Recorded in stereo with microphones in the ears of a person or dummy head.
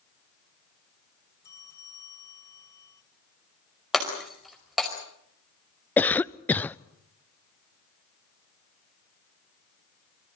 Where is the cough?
5° left (ahead or behind), 0.5 m.